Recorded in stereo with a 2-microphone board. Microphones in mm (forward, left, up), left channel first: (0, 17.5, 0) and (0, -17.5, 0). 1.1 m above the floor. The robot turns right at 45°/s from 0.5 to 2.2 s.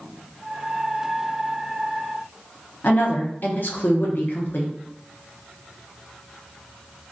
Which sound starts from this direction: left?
A woman speaking, at 2.8 s.